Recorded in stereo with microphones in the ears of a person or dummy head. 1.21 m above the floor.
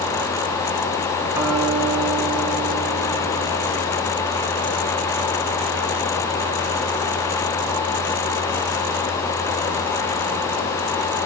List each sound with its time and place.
1.3 s a guitar: 15° right (ahead or behind), 2.0 m